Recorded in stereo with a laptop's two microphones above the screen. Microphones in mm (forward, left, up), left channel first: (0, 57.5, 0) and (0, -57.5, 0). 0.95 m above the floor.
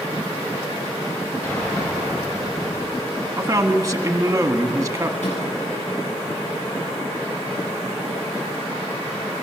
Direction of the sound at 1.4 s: 25° left (ahead or behind).